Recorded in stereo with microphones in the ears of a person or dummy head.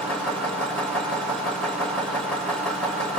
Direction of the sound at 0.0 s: Centre (ahead or behind).